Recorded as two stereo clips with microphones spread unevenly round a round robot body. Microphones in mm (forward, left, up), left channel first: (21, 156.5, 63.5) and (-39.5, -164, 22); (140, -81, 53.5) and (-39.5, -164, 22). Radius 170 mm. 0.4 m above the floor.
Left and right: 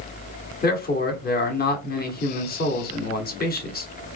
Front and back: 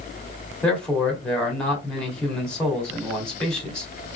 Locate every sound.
0.6 s a man speaking: 125° left, 1.5 m